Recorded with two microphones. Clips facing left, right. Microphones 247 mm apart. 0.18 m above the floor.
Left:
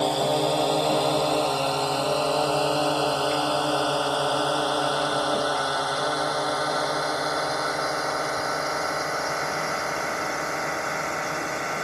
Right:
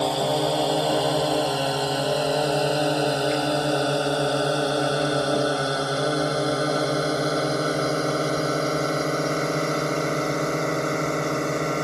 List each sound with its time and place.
0.0 s a drone: centre (ahead or behind); by 11.8 s 45° right (ahead or behind)